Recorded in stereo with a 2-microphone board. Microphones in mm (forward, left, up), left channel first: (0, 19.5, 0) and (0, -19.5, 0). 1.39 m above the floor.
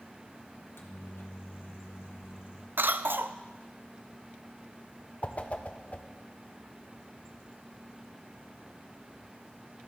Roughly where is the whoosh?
Left.